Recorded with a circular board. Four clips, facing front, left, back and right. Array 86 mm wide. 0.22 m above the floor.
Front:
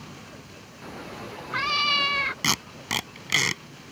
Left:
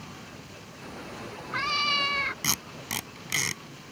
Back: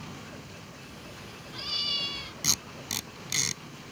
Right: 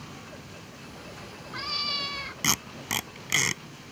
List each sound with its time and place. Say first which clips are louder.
0.8 s a cat meowing: left 6 dB, front 7 dB; 25° left
2.4 s tape being pulled: right 3 dB, front 9 dB; 20° right